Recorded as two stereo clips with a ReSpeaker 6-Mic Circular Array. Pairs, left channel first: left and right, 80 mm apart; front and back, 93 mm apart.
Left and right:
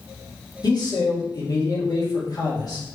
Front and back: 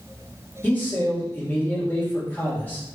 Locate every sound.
0.6 s a man speaking: 70° left, 1.8 m